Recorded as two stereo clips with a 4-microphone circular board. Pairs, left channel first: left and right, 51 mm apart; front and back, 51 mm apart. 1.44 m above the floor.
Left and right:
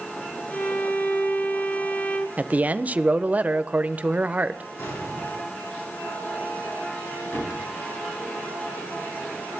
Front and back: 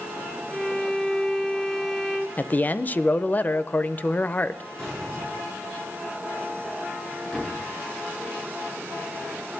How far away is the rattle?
I don't hear a rattle.